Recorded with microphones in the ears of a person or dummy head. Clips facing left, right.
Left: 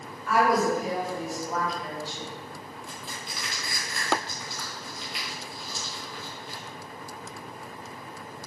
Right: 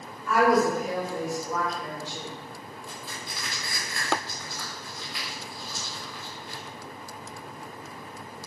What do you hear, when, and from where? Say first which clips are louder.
0.3 s a woman speaking: right 2 dB; 25° left (ahead or behind), 1.1 m
2.9 s crushing: even; 15° left (ahead or behind), 1.0 m